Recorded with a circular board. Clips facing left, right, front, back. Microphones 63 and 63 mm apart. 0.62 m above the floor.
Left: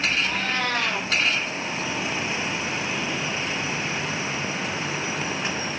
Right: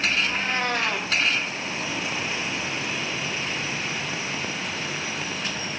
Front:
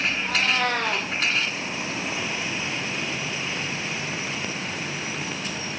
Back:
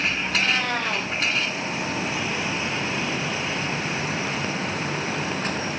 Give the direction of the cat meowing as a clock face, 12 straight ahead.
1 o'clock.